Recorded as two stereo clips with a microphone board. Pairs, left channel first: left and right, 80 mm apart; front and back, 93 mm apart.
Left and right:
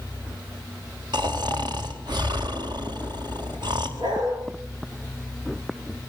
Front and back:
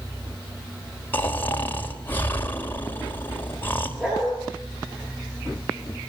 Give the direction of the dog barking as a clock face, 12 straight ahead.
3 o'clock.